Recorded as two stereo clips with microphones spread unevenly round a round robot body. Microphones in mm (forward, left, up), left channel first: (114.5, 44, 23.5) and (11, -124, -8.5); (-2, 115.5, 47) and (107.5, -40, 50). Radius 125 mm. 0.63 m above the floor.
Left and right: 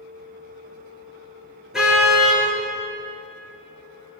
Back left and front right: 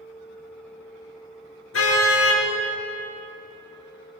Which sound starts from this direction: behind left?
A car horn, at 1.7 s.